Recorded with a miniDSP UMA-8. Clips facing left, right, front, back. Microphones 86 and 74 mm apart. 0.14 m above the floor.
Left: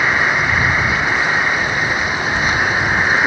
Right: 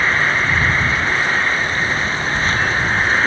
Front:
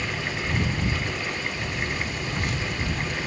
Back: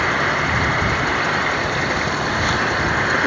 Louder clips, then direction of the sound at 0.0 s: Left 1 dB, back 11 dB; 165° left.